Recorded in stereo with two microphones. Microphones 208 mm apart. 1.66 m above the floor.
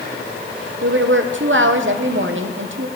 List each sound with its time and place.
0.8 s a woman speaking: 70° right (ahead or behind), 1.0 m